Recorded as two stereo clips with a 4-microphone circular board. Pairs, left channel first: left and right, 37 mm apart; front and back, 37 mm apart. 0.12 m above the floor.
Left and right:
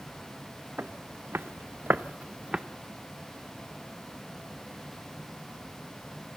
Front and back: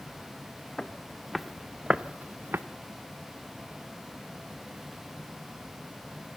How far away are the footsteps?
About 1.5 m.